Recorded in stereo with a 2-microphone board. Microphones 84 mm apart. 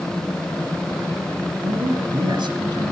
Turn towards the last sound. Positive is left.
turn(degrees=-70)  # may be behind; listen again after turning